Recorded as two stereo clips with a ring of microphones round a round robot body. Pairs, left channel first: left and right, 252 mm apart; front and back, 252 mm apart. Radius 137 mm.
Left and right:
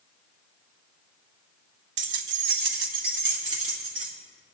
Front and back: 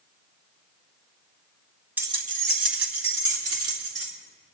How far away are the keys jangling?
About 1.0 m.